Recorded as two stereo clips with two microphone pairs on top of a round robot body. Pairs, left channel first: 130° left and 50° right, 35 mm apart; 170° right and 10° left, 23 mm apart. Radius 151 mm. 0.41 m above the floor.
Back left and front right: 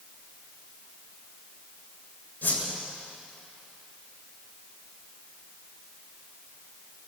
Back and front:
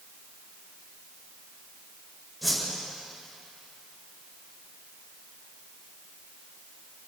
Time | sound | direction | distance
2.4 | a whoosh | 100° left | 8 m